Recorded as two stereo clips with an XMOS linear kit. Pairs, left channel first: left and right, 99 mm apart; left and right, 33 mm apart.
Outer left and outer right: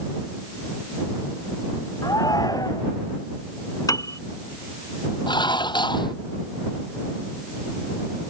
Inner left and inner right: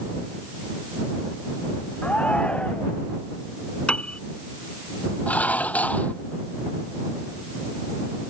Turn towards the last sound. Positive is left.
turn(degrees=50)  # may be behind; listen again after turning